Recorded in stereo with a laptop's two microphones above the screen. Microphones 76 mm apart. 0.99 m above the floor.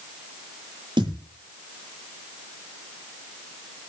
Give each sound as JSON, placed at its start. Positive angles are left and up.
{"t": 1.0, "sound": "a thud", "side_deg": -80, "distance_m": 9.5}